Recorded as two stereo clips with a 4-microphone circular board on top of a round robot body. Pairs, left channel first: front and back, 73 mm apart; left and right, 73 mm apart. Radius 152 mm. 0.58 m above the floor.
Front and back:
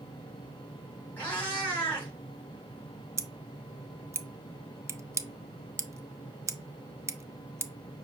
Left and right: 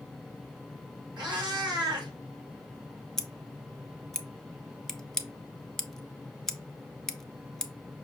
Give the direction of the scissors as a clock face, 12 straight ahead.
6 o'clock.